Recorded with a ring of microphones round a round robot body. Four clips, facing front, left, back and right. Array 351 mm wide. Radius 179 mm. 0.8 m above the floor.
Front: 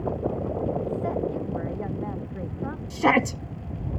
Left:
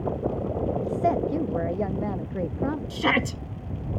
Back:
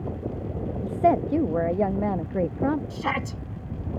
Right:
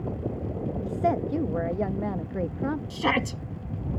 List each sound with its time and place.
0.8 s a woman speaking: 170° right
2.9 s a shout: 15° left